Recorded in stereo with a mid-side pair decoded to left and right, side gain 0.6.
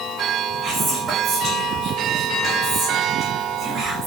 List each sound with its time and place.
0.6 s whispering: 35° right, 0.7 m